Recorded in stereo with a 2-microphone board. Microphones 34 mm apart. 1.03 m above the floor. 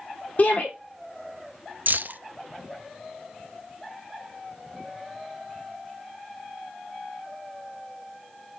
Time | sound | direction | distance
0.4 | a shout | 45° left (ahead or behind) | 3 m
1.9 | keys jangling | 65° right (ahead or behind) | 0.6 m